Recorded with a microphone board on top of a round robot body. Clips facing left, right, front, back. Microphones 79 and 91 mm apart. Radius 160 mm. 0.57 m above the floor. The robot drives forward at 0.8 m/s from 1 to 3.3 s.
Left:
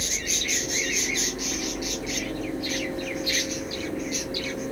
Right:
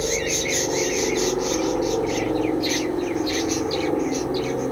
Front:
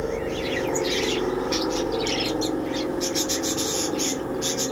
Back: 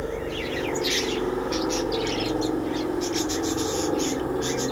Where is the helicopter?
80° right; by 4.7 s 105° right.